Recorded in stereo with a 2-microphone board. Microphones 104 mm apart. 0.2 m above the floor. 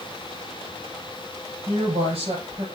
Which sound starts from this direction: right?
A woman speaking, at 1.7 s.